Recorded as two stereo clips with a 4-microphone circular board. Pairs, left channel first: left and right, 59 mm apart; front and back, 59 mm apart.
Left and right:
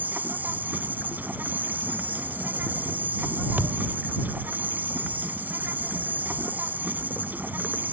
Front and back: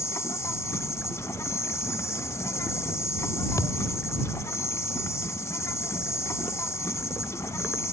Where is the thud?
30° right.